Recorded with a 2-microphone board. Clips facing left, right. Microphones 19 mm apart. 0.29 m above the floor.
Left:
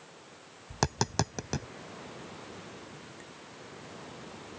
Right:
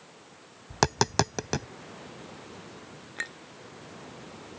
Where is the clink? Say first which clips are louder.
Right 13 dB; 65° right (ahead or behind).